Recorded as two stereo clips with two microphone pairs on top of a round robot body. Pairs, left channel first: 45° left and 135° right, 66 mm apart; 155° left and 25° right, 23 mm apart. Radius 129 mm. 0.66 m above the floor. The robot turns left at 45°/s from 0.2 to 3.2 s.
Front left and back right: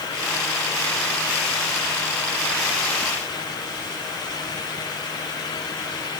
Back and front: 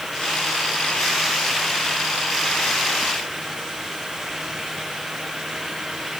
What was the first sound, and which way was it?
Only background noise.